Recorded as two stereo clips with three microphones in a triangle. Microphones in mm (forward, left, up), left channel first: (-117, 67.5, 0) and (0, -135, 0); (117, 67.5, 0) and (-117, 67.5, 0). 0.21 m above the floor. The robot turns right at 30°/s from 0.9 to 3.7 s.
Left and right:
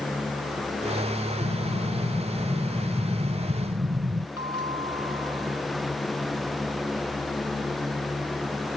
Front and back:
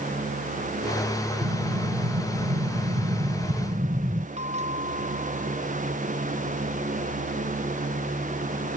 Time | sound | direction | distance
1.4 | an explosion | 175° left | ?
4.4 | a bell | 120° left | ?